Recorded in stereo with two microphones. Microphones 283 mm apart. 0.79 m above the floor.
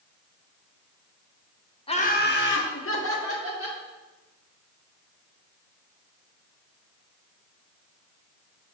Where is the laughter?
20° left (ahead or behind), 0.5 m; by 3.8 s 55° left (ahead or behind), 1.7 m.